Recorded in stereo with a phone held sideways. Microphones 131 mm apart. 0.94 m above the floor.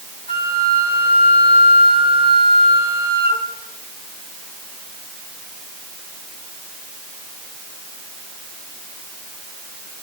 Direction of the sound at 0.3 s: 45° left (ahead or behind).